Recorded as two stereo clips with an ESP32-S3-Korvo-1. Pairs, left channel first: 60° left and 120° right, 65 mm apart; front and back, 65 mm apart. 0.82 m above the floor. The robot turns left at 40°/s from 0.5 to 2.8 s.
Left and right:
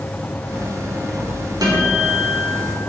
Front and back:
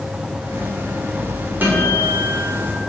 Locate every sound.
1.6 s a guitar: 120° right, 3 m; by 2.8 s 165° right, 3 m